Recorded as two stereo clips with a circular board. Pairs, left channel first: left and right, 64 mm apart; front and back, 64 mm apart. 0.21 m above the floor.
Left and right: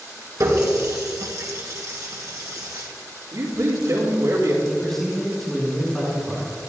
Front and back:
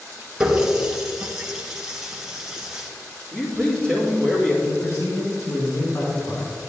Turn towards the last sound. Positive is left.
turn(degrees=5)